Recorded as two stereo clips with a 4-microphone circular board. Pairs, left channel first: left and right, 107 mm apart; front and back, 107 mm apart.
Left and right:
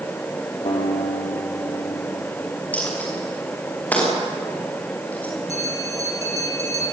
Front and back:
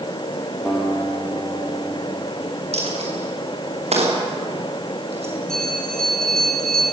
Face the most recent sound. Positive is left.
turn(degrees=85)